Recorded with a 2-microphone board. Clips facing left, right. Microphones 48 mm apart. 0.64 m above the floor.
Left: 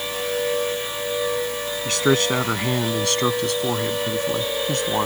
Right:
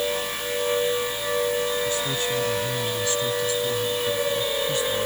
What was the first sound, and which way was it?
A man speaking, 65° left (ahead or behind).